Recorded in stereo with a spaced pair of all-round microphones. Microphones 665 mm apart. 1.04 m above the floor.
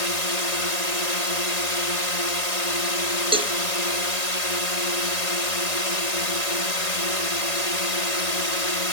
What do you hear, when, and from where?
0.0 s a drone: 65° left (ahead or behind)
3.3 s a cowbell: 10° right (ahead or behind)